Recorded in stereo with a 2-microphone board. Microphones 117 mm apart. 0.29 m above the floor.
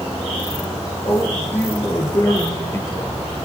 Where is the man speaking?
20° left (ahead or behind), 5 m.